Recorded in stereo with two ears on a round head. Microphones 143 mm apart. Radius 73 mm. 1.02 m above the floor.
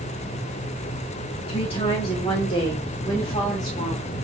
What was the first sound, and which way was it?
A woman speaking, 35° left (ahead or behind).